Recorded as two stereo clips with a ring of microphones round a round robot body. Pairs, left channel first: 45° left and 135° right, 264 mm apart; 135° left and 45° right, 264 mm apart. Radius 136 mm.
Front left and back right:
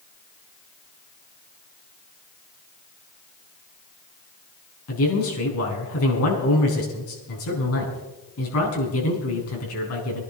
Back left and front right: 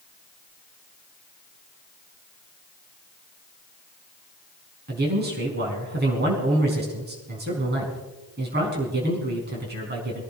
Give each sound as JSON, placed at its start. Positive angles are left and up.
{"t": 4.9, "sound": "a man speaking", "azimuth_deg": 10, "distance_m": 5.5}